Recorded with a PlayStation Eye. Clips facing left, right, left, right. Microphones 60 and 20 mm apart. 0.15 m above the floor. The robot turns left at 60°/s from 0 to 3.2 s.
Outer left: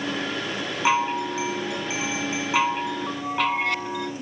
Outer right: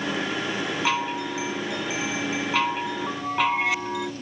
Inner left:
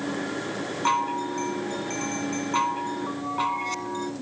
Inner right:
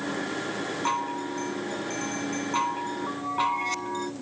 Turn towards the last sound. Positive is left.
turn(degrees=-5)  # may be behind; listen again after turning